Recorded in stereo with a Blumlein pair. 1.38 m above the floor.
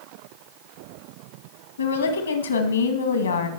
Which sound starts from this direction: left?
A woman speaking, at 1.8 s.